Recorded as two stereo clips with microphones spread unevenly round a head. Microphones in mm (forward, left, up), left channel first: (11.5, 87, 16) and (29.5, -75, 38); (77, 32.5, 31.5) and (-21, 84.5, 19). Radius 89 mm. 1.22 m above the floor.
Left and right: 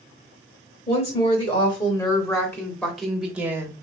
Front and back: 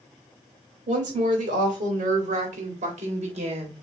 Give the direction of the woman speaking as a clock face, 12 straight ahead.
7 o'clock.